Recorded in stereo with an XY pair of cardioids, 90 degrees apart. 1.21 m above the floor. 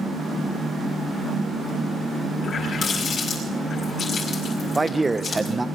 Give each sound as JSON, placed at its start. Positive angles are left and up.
{"t": 2.4, "sound": "a running tap", "azimuth_deg": 70, "distance_m": 5.0}
{"t": 4.8, "sound": "a man speaking", "azimuth_deg": -15, "distance_m": 0.7}